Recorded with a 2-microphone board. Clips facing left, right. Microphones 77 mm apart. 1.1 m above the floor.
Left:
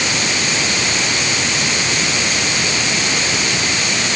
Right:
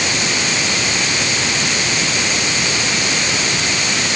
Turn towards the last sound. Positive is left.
No sound to turn to.